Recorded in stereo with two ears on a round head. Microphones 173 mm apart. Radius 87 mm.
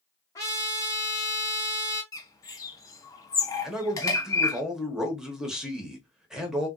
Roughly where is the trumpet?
Centre.